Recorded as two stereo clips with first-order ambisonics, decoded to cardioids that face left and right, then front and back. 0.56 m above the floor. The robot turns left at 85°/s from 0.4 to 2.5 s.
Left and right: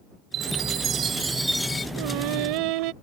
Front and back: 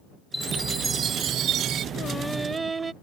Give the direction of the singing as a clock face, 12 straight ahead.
2 o'clock.